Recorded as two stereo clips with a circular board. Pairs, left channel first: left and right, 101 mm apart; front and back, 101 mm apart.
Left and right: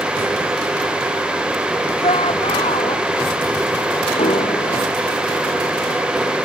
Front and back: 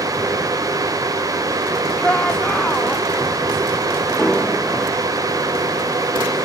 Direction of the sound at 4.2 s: 85° left.